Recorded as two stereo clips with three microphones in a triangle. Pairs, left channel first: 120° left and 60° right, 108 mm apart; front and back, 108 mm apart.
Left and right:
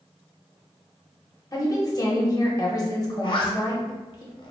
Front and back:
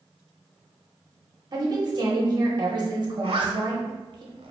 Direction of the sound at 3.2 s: 155° left.